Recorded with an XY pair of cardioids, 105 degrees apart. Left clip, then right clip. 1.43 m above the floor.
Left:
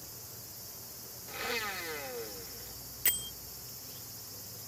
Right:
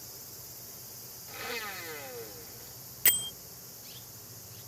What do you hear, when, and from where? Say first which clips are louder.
1.3 s a blender: left 2 dB; 15° left
3.0 s a bell: right 5 dB; 35° right